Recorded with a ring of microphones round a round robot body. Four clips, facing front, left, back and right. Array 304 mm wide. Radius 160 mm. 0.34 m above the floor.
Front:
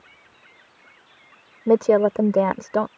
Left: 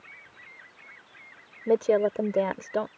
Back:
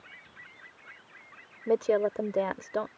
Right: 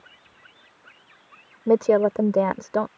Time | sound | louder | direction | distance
1.7 | a woman speaking | right 4 dB, front 9 dB | 30° right | ?